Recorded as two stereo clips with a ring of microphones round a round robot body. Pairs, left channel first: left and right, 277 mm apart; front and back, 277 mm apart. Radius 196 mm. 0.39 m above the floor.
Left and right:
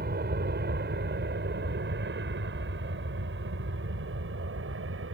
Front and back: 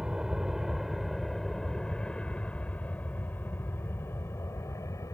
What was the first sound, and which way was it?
An aircraft, 95° right.